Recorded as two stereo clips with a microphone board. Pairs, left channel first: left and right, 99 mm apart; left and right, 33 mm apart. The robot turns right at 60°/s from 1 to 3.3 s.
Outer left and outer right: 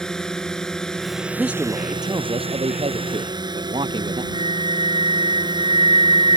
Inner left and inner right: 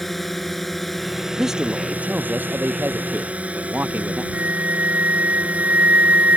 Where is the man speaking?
175° right; by 4.2 s 60° right.